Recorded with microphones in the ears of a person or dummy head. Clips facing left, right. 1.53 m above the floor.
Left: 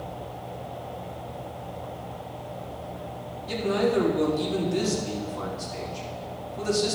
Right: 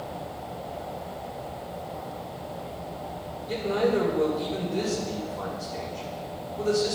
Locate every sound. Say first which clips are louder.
3.5 s a man speaking: even; 70° left (ahead or behind), 3.5 m